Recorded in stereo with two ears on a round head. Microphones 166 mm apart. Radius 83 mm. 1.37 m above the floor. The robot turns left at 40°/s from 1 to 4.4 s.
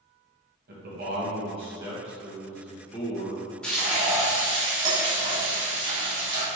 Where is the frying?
5° left, 1.8 m; by 6.5 s 25° right, 1.8 m.